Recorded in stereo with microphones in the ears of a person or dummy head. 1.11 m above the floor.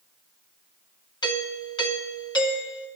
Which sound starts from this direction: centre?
A doorbell, at 1.2 s.